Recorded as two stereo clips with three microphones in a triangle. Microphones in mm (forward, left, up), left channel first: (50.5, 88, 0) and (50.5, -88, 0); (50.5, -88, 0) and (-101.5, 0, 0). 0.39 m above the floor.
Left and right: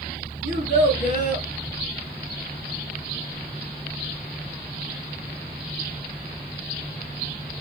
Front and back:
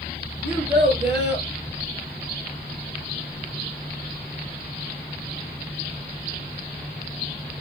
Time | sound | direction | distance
0.4 | a child speaking | 130° left | 5 m